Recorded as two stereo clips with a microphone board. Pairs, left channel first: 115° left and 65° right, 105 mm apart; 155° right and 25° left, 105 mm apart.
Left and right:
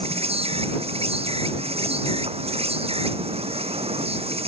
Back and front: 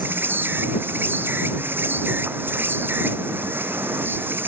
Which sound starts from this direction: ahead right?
An insect, at 0.0 s.